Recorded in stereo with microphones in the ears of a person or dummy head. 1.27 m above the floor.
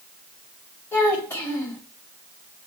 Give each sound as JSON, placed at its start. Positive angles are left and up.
{"t": 0.9, "sound": "a child speaking", "side_deg": 15, "distance_m": 1.5}